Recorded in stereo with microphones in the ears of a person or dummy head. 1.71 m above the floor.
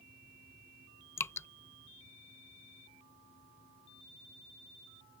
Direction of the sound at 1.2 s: 15° left (ahead or behind).